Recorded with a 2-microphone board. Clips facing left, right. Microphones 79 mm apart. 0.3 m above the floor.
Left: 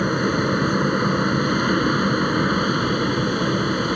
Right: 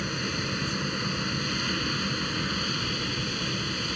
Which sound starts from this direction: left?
An aircraft, at 0.0 s.